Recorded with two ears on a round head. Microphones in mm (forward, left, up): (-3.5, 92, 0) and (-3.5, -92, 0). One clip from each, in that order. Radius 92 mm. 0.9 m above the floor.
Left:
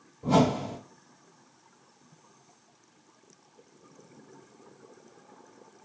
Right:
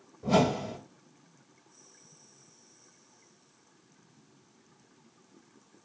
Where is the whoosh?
10° right (ahead or behind), 0.7 m.